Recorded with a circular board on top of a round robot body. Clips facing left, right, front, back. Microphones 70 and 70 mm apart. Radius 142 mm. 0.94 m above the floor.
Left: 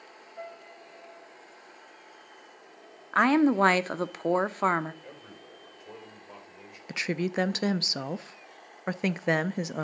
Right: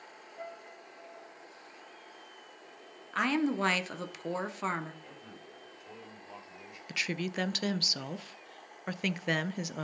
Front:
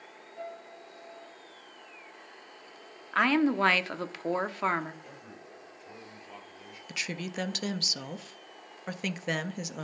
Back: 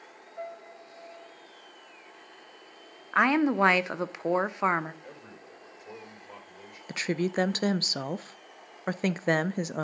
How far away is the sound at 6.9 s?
About 0.5 m.